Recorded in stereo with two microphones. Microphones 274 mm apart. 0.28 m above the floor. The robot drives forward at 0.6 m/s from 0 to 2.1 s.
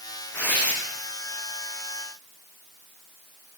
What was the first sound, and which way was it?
Tearing paper, 5° left (ahead or behind).